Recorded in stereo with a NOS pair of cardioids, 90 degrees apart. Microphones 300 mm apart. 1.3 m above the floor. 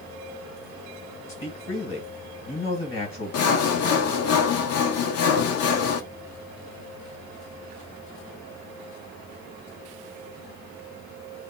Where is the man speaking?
45° left, 1.6 m.